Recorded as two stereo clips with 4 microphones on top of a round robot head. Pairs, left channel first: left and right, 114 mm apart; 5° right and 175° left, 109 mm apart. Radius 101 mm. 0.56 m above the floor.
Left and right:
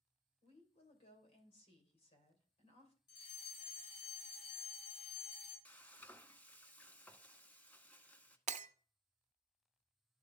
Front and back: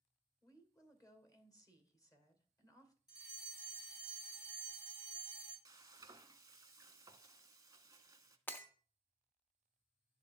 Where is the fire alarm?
45° left, 4.5 m.